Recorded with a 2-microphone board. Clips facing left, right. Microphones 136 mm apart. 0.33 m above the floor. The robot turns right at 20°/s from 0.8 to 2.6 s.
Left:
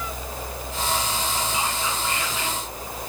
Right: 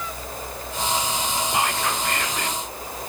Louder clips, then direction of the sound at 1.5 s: Right 3 dB; 70° right (ahead or behind).